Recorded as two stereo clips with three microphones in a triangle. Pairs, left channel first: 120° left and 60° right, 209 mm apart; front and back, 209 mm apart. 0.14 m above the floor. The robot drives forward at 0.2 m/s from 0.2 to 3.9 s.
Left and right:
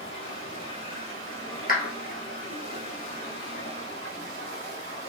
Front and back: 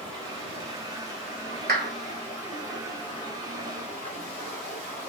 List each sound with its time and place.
0.0 s running water: 115° left, 2.5 m; by 5.1 s 130° left, 2.5 m
1.7 s a clap: 155° left, 1.5 m